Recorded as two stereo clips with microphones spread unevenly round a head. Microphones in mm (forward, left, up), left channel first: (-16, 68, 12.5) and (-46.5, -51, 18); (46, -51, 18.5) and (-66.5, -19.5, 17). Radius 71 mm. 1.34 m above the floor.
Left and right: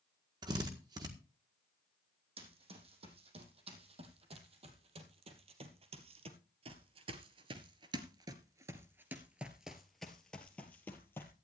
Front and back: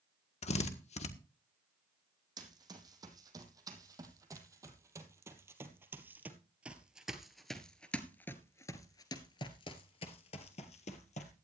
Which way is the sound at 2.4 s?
145° right.